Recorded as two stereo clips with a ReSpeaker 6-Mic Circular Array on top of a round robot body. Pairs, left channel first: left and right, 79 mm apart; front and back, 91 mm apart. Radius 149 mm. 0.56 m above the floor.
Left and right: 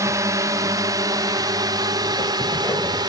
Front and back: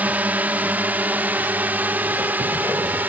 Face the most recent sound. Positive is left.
turn(degrees=-110)